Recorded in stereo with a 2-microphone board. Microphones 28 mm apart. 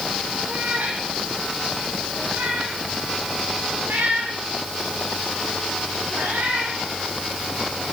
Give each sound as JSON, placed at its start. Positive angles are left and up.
{"t": 0.5, "sound": "a cat meowing", "side_deg": -75, "distance_m": 9.0}